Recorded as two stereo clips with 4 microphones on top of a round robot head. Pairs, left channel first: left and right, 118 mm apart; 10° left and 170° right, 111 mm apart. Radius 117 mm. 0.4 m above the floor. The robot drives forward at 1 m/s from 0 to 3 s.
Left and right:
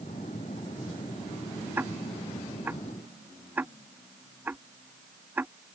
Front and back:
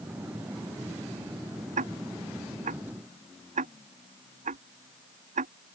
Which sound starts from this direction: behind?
Ticking, at 1.8 s.